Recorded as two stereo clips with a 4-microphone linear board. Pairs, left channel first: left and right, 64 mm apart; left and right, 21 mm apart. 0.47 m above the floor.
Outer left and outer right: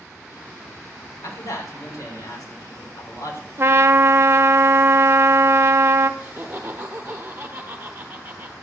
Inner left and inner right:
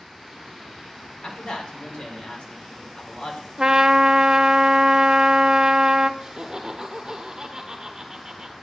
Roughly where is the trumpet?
Right.